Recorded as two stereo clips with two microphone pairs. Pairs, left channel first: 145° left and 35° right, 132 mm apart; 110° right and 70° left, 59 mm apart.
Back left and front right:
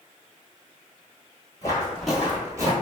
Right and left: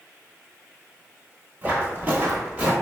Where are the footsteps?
105° left, 1.1 m; by 2.7 s 10° left, 1.3 m.